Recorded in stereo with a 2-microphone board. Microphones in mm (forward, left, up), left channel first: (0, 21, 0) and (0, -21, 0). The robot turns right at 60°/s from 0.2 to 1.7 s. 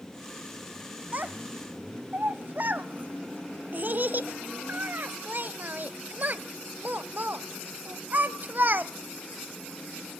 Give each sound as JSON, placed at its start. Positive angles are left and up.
{"t": 1.1, "sound": "a child speaking", "side_deg": -35, "distance_m": 0.7}